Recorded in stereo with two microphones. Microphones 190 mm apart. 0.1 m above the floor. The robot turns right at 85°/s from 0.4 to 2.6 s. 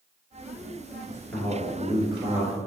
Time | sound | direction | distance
1.1 | a man speaking | 15° left (ahead or behind) | 1.6 m